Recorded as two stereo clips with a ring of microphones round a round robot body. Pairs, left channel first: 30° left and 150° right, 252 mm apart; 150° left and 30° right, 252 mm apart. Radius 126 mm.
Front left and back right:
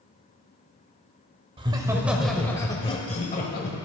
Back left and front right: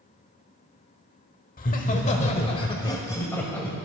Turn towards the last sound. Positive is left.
turn(degrees=65)